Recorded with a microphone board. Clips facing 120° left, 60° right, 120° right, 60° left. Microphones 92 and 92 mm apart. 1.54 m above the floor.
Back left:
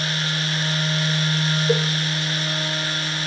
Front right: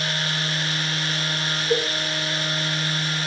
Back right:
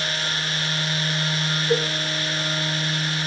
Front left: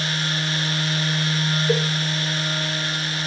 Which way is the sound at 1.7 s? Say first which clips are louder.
Back left 1 dB, back right 1 dB; 95° left.